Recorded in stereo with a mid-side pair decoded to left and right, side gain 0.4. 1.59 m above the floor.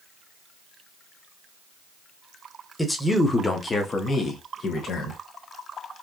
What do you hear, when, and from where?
2.8 s a man speaking: 10° left, 1.5 m; by 5.2 s 65° left, 1.9 m